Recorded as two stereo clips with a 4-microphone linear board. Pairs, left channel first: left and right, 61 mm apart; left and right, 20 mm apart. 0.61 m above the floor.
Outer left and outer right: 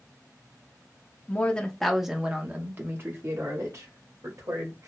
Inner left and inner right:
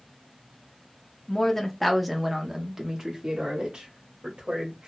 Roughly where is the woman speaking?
Left.